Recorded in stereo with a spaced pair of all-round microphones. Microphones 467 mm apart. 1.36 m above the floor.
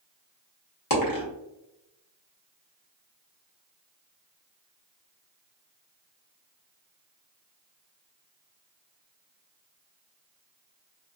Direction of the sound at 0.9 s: 45° left (ahead or behind).